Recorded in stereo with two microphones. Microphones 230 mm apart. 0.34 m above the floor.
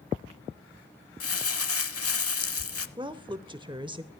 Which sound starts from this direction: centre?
A woman speaking, at 3.0 s.